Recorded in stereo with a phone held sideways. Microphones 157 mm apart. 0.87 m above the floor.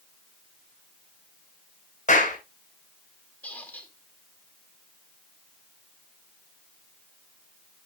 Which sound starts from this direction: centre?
A squeak, at 3.4 s.